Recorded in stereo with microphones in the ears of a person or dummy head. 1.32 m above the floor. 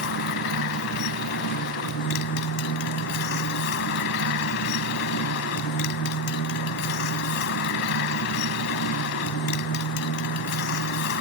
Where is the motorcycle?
65° left (ahead or behind).